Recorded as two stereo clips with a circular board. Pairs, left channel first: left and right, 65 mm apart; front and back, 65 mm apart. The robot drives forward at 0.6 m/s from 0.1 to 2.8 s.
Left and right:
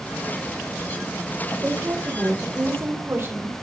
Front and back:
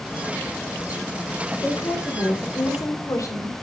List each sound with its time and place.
1.6 s a woman speaking: 35° right, 4.5 m; by 3.5 s 40° right, 4 m